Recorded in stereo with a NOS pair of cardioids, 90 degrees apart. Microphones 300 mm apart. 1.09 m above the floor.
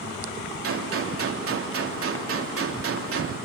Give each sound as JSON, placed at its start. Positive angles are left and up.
{"t": 0.6, "sound": "a gunshot", "azimuth_deg": -50, "distance_m": 3.0}